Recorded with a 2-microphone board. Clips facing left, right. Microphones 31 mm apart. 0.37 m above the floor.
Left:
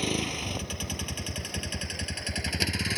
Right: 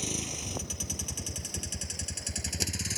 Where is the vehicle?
40° left (ahead or behind).